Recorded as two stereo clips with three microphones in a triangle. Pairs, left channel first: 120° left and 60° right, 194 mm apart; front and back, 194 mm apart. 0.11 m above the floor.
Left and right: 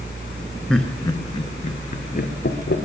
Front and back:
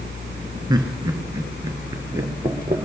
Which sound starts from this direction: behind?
Laughter, at 0.7 s.